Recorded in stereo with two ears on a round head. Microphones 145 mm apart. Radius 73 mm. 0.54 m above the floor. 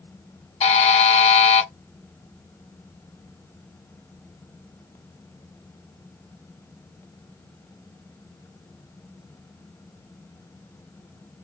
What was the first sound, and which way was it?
A buzzer, 40° left (ahead or behind).